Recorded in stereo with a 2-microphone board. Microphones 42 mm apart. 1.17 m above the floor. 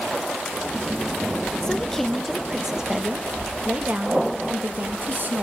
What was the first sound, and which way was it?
A woman speaking, 15° left (ahead or behind).